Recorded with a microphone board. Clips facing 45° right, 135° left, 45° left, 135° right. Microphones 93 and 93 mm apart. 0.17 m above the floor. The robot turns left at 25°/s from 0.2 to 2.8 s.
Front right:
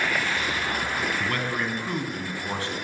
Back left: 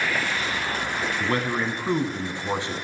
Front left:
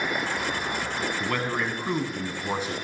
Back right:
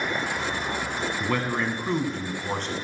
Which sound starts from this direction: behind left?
A man speaking, at 1.2 s.